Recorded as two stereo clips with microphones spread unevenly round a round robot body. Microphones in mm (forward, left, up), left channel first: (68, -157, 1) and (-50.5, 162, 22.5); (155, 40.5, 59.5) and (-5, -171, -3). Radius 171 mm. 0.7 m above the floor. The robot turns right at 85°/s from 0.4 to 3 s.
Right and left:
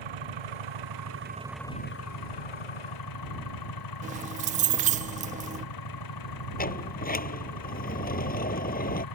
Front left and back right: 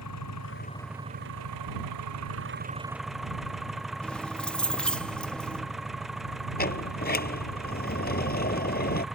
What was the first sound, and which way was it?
An engine running, 100° left.